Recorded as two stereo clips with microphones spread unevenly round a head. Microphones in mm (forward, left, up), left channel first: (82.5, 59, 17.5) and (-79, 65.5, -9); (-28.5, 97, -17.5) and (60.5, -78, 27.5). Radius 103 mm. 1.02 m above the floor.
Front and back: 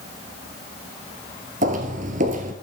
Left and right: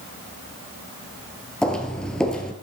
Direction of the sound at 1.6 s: 145° right.